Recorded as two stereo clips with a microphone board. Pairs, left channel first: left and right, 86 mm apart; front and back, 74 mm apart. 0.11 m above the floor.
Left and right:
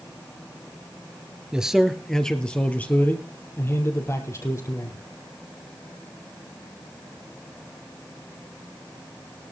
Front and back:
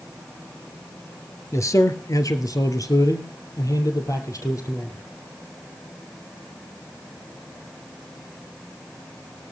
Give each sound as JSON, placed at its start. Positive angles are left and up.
{"t": 1.5, "sound": "a man speaking", "azimuth_deg": -15, "distance_m": 1.9}